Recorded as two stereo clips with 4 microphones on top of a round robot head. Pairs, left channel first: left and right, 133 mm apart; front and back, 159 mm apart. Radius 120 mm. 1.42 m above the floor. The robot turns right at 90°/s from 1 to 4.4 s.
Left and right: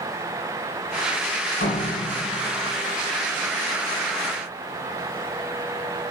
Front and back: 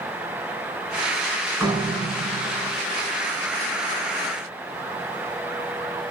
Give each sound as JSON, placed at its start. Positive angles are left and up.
{"t": 1.6, "sound": "a door slam", "azimuth_deg": 100, "distance_m": 5.0}